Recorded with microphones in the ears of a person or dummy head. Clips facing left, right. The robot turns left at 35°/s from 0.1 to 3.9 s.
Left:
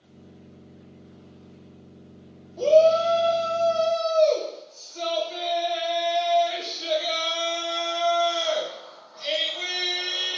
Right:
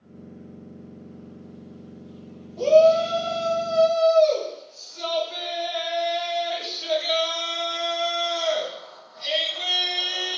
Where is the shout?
Straight behind, 1.9 m; by 10.4 s 135° left, 1.9 m.